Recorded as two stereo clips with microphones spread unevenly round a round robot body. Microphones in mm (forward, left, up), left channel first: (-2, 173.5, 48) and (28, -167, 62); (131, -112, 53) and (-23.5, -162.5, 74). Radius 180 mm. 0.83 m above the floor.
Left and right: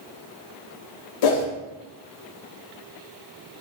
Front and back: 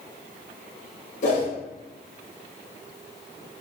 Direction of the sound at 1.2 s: 70° left.